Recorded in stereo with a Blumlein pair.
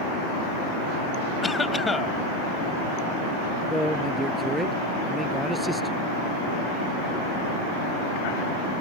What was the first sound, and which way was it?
A cough, 10° left.